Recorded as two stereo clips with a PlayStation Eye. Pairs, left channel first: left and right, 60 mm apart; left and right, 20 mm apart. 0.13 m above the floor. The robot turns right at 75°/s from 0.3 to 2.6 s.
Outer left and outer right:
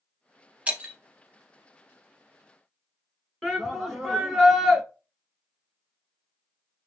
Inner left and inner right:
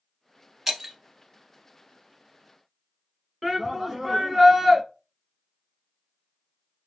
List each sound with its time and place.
0.7 s breaking glass: 20° right (ahead or behind), 0.7 m
3.4 s a shout: 10° left (ahead or behind), 1.2 m